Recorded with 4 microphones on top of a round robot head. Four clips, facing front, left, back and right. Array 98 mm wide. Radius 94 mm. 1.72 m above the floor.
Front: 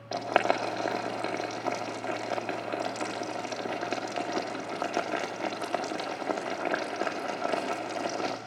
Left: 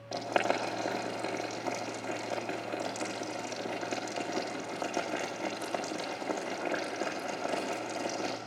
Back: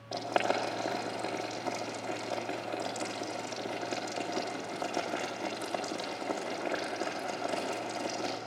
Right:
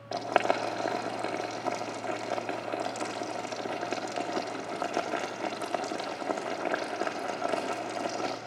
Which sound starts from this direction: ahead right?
Boiling, at 0.1 s.